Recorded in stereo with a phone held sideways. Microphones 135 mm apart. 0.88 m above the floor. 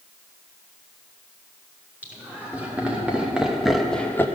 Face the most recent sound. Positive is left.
turn(degrees=15)  # may be behind; listen again after turning